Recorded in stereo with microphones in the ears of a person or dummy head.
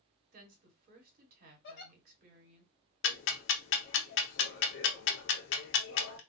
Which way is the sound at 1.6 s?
65° left (ahead or behind).